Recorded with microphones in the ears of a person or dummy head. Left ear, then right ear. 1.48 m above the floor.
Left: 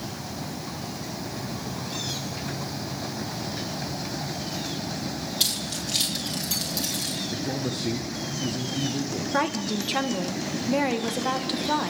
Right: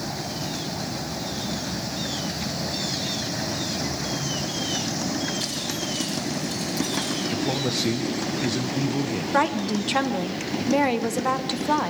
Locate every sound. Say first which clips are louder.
5.4 s keys jangling: left 1 dB; 40° left (ahead or behind), 5.5 m; by 7.2 s 15° left (ahead or behind), 4.5 m
7.3 s a man speaking: right 5 dB; 35° right (ahead or behind), 1.2 m
9.3 s a woman speaking: right 4 dB; 10° right (ahead or behind), 1.2 m